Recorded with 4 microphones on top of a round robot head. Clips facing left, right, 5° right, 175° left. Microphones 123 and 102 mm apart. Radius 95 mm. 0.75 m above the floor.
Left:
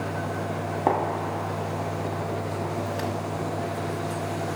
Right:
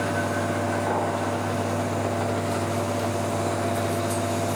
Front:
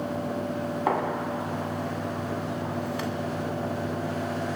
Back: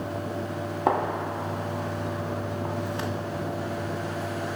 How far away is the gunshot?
About 1.2 m.